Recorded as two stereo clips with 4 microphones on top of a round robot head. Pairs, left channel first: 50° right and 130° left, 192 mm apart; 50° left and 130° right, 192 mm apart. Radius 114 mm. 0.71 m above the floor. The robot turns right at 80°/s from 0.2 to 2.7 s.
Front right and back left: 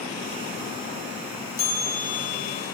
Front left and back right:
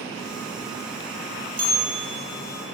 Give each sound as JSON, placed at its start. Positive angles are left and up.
{"t": 1.6, "sound": "a bell", "azimuth_deg": -80, "distance_m": 1.6}